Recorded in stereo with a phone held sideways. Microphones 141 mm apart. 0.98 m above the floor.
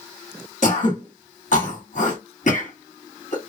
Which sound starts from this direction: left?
Throat clearing, at 0.6 s.